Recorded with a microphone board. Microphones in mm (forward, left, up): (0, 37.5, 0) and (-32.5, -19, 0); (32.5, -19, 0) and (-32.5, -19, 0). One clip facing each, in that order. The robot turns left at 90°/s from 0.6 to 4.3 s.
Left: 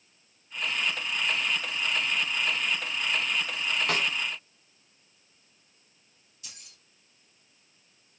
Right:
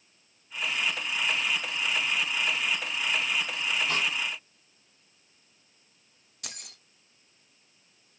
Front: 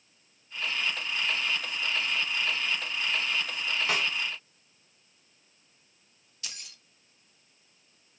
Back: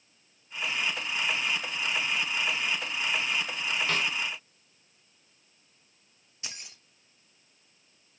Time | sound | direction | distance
3.9 | a snare drum | 80° left | 3.5 m
6.4 | keys jangling | 115° right | 1.2 m